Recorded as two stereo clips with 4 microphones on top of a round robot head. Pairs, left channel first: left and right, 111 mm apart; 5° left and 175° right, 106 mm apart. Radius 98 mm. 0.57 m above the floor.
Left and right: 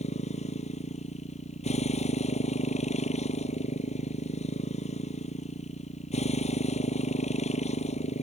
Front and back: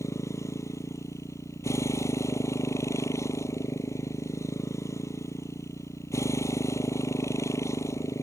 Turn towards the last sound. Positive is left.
turn(degrees=70)